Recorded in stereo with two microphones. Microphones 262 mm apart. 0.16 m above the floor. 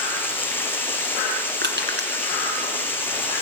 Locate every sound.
0.0 s running water: 10° left (ahead or behind), 1.9 m
1.6 s crushing: 45° right (ahead or behind), 1.8 m